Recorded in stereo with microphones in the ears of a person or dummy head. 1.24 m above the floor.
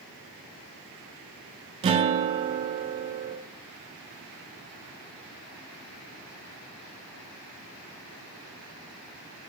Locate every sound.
1.8 s a guitar: 25° right (ahead or behind), 0.6 m